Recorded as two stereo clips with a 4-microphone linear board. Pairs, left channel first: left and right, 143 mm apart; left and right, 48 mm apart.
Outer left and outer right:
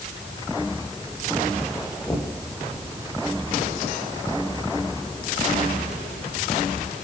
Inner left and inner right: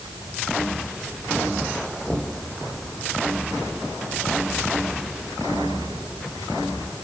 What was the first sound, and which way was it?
Knocking, 20° left (ahead or behind).